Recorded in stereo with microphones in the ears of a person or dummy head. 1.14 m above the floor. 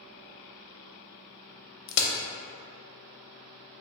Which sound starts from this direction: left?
A crack, at 1.9 s.